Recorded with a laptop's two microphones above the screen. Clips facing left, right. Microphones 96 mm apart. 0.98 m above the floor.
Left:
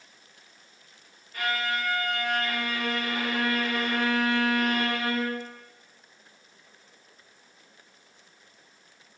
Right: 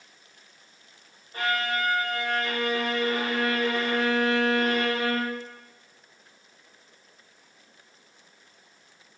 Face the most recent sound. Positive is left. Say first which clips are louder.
# right 2 dB
turn(degrees=-30)  # may be behind; listen again after turning